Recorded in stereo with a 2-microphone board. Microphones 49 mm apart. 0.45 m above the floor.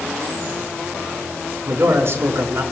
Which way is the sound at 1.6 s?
60° right (ahead or behind).